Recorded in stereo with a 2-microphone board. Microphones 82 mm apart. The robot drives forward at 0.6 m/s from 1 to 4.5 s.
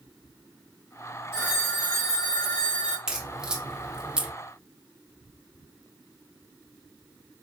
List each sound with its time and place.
1.3 s a phone ringing: 30° left (ahead or behind), 1.3 m; by 3.0 s 55° left (ahead or behind), 0.8 m
3.1 s a crack: 10° right (ahead or behind), 1.1 m